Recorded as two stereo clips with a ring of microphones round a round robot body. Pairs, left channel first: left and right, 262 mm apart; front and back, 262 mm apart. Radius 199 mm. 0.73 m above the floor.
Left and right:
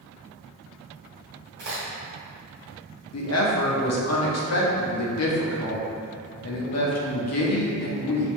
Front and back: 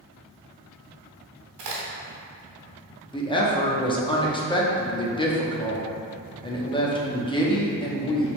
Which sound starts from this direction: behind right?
A crack, at 1.6 s.